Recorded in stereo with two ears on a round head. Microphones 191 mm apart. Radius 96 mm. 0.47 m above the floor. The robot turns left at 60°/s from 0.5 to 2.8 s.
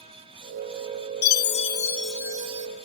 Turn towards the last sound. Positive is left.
turn(degrees=-45)